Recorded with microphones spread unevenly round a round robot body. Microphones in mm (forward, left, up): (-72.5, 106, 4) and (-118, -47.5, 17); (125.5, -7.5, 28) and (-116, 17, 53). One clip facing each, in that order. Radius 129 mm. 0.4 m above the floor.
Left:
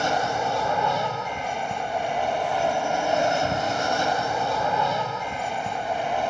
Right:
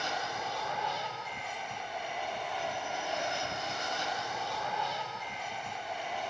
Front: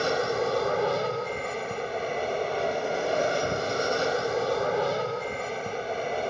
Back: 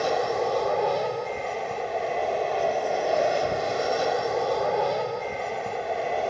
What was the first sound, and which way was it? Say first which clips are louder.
An aircraft: left 12 dB, back 1 dB; 60° left.